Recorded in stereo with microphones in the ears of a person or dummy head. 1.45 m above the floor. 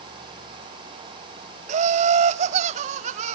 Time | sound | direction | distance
1.7 | laughter | 40° right (ahead or behind) | 1.1 m